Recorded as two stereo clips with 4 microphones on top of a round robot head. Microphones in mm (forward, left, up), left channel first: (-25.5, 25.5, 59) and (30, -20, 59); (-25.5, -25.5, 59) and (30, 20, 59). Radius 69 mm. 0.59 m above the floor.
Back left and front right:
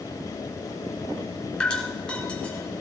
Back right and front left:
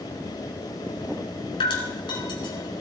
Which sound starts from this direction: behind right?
Dripping, at 1.6 s.